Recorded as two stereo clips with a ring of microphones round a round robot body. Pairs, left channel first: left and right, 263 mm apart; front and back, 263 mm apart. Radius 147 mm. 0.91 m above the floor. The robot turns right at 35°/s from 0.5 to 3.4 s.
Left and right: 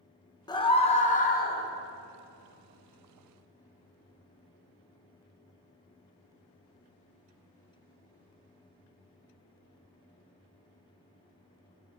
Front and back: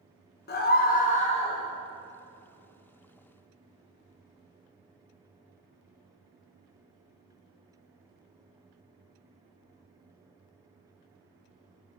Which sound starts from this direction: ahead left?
A scream, at 0.5 s.